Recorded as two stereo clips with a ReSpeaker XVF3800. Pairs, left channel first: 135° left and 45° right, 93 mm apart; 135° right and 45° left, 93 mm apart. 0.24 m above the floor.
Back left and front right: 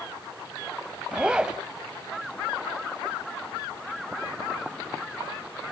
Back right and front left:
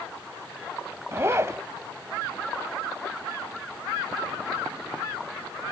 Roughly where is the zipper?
Ahead left.